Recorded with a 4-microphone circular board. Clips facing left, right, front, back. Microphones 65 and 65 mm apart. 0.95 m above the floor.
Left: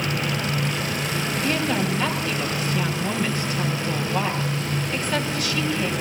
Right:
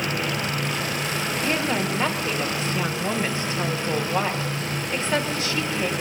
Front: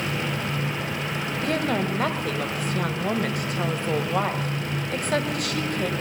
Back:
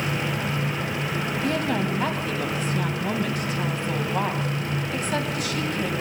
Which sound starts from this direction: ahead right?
A woman speaking, at 1.4 s.